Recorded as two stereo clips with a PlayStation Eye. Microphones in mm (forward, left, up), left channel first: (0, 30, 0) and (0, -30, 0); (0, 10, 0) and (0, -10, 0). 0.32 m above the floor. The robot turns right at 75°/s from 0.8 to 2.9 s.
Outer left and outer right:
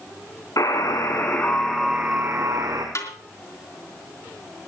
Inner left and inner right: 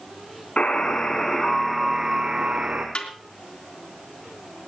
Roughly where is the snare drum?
Left.